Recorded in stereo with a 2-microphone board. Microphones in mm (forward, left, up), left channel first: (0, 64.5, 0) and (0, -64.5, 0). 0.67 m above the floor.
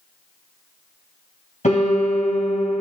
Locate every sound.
1.6 s a piano: 70° left (ahead or behind), 5.5 m